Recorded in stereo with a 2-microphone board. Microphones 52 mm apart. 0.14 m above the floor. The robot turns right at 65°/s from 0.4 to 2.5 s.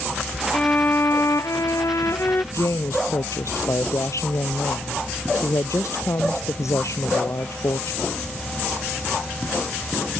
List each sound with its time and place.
0.5 s a violin: 20° left; by 2.4 s 140° left
2.5 s a woman speaking: 70° left (ahead or behind)